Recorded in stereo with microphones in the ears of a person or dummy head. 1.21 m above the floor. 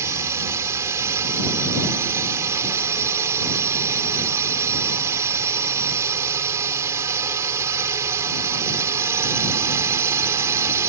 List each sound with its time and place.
0.0 s a drone: 15° right (ahead or behind)